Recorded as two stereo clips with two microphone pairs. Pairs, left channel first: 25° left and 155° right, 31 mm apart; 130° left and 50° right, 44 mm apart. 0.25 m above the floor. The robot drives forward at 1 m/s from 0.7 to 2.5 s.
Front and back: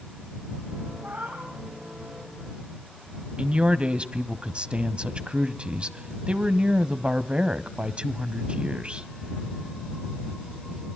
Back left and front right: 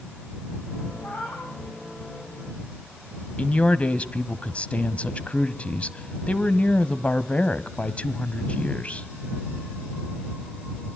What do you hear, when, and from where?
1.0 s a cat meowing: 175° left, 8 m
3.4 s a man speaking: 175° left, 1.3 m